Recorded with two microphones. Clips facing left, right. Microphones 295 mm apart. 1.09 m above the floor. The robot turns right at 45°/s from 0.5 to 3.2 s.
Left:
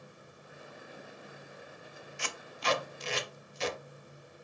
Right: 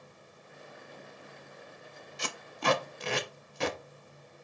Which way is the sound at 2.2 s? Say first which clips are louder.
Right 5 dB; 45° right (ahead or behind).